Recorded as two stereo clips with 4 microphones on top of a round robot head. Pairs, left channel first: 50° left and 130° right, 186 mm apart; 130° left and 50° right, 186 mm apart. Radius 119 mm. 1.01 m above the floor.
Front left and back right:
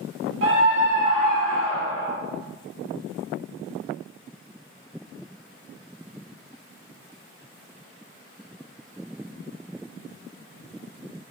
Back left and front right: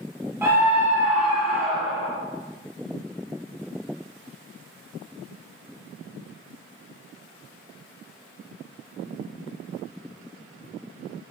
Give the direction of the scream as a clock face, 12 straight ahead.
4 o'clock.